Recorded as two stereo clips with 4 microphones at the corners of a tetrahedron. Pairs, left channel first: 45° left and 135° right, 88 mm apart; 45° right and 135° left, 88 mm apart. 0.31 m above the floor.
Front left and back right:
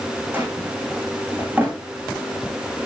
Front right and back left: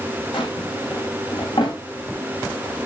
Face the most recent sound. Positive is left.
turn(degrees=-65)